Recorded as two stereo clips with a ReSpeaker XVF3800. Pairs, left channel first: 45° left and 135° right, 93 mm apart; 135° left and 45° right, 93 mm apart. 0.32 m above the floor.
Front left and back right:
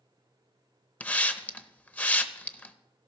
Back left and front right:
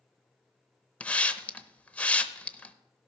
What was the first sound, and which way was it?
A hiss, 90° left.